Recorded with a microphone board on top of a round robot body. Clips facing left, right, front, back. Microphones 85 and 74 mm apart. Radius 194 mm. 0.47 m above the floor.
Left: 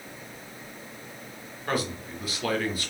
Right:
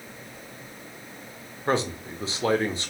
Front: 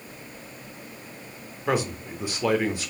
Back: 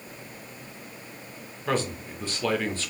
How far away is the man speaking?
About 1.2 m.